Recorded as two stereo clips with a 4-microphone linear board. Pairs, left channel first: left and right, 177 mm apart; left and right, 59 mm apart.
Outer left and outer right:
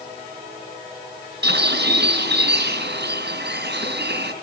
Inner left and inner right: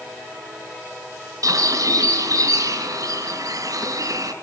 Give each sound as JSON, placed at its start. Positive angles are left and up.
{"t": 1.4, "sound": "a bird", "side_deg": -70, "distance_m": 3.5}